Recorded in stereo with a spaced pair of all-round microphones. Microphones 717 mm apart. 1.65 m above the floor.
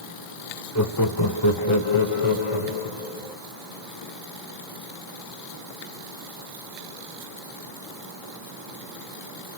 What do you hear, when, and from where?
0.8 s laughter: 25° left (ahead or behind), 0.8 m; by 3.4 s 50° left (ahead or behind), 2.0 m